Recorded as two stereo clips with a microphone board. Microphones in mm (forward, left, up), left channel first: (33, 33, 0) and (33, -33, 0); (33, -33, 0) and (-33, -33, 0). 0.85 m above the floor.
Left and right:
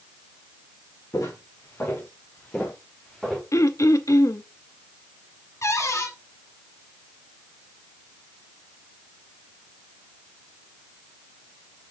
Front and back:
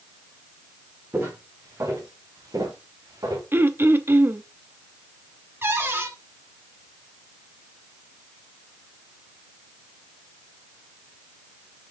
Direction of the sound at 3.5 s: 125° left.